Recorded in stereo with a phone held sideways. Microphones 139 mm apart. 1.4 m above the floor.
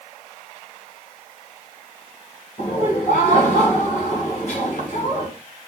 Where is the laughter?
55° left (ahead or behind), 1.3 m.